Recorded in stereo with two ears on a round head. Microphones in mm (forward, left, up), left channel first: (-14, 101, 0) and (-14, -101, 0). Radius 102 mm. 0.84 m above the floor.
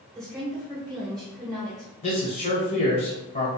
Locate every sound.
0.1 s a woman speaking: 15° right (ahead or behind), 0.8 m
2.0 s a man speaking: 30° left (ahead or behind), 0.8 m